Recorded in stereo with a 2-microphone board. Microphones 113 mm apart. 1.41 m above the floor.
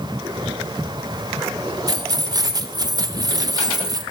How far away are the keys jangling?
About 0.9 m.